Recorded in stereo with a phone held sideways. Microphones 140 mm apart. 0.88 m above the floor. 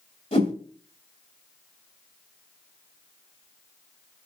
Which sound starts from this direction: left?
A whoosh, at 0.3 s.